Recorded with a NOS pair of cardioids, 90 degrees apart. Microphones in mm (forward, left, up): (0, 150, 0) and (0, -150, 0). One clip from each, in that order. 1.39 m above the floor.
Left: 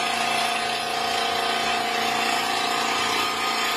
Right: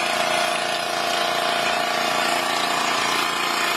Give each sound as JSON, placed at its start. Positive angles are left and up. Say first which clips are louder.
{"t": 0.0, "sound": "an engine running", "louder": "right 2 dB", "azimuth_deg": -65, "distance_m": 0.7}